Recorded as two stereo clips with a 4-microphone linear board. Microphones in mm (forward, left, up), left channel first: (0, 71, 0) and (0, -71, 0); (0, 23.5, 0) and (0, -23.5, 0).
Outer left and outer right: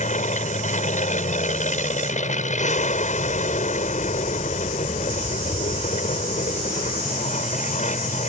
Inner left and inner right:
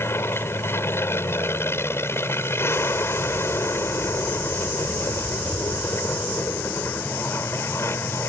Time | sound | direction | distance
0.0 | an aircraft | 60° left (ahead or behind) | ?